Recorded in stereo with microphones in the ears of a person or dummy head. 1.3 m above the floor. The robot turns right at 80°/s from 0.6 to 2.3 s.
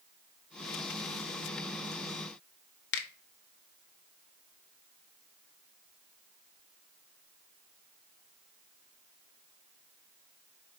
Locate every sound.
2.9 s a finger snap: 55° left (ahead or behind), 0.8 m